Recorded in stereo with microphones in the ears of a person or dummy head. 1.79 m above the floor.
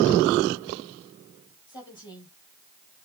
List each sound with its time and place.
1.7 s a woman speaking: 25° left (ahead or behind), 6 m